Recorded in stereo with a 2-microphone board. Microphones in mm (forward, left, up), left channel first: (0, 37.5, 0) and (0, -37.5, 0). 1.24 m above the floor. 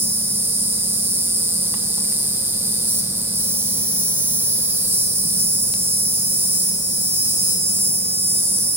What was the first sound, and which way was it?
An insect, 30° right (ahead or behind).